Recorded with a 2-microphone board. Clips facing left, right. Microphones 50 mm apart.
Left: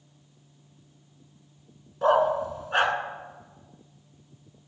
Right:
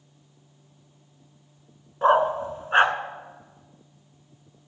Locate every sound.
2.0 s a dog barking: 30° right (ahead or behind), 1.1 m